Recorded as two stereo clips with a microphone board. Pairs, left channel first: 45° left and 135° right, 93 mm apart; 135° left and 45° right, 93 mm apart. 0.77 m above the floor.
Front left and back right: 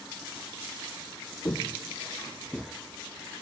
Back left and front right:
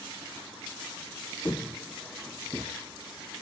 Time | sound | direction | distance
1.4 | footsteps | 85° left | 1.0 m